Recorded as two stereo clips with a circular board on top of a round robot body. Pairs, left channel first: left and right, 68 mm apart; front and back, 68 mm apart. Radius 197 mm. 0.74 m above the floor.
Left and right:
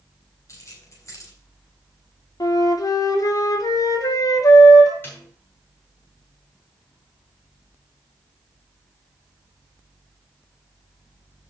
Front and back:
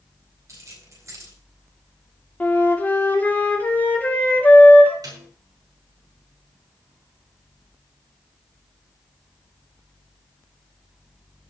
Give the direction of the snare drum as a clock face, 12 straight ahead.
7 o'clock.